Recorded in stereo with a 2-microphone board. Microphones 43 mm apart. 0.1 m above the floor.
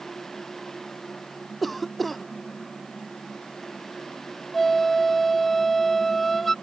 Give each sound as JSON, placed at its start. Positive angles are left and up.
{"t": 1.6, "sound": "a cough", "side_deg": 0}
{"t": 4.5, "sound": "a flute", "side_deg": 5}